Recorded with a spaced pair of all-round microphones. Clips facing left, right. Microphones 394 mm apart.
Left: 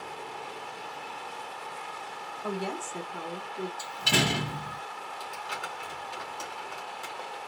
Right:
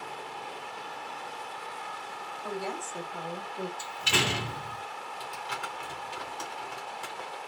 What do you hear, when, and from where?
2.4 s a woman speaking: 55° left (ahead or behind), 0.8 m; by 3.7 s 5° left (ahead or behind), 0.9 m
3.8 s a door slam: 55° left (ahead or behind), 0.9 m
5.2 s crumpling: 30° right (ahead or behind), 1.4 m